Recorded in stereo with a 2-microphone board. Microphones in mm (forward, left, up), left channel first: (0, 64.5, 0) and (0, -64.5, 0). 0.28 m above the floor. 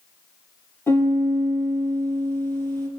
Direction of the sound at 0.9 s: 20° left (ahead or behind).